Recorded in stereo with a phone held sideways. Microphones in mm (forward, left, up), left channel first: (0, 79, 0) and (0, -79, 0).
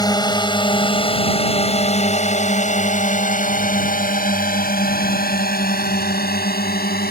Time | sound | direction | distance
0.0 | a drone | 25° left (ahead or behind) | ?